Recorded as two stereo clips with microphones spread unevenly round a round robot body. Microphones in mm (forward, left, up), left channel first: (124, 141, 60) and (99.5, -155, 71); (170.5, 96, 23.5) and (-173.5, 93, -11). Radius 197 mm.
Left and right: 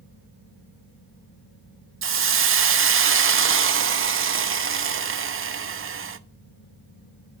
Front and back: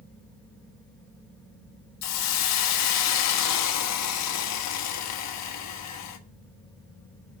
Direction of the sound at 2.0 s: 50° right.